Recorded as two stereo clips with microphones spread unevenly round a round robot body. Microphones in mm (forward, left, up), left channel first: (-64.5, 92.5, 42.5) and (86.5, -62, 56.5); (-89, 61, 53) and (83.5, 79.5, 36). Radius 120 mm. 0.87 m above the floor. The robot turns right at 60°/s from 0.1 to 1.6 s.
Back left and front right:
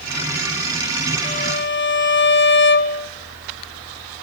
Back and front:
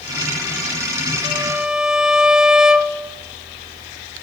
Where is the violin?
70° left, 1.3 m; by 3.1 s 95° left, 1.3 m.